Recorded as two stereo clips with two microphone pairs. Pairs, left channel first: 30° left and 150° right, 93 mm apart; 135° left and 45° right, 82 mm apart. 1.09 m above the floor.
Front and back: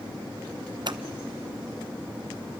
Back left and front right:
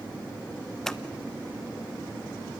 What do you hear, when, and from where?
0.9 s scissors: 145° right, 0.9 m